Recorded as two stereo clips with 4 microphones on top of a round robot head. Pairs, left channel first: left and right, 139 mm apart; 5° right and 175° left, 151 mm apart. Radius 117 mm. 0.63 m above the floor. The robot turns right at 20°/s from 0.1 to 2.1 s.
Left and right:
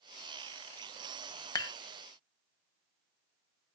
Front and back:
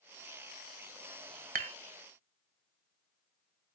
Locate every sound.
1.6 s dishes clattering: 150° left, 0.8 m; by 1.8 s 155° left, 0.8 m